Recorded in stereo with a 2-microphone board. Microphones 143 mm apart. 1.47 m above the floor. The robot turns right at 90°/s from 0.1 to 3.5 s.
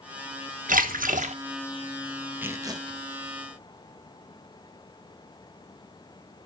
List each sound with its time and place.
0.7 s a splash: 105° right, 1.2 m; by 1.3 s 45° right, 1.2 m
2.4 s tearing paper: 160° right, 0.8 m; by 3.0 s 105° right, 0.8 m